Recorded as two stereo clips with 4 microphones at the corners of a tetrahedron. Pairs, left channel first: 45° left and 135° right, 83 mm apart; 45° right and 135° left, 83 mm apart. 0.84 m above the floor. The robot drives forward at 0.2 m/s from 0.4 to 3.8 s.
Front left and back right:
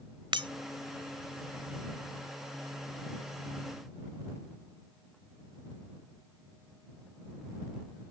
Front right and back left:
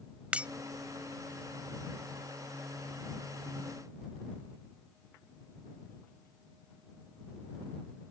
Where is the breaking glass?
150° right.